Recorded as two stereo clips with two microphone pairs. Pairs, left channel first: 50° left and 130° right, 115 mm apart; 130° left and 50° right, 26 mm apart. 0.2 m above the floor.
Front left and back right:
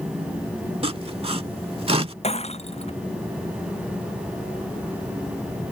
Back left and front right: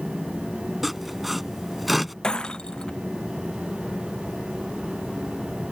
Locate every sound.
0.8 s sawing: 135° right
2.2 s breaking glass: 75° left